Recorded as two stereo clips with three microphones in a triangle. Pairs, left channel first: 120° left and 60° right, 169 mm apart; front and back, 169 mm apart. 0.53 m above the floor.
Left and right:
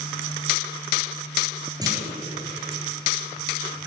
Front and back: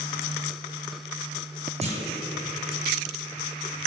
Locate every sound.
1.8 s a clunk: 125° right, 6.5 m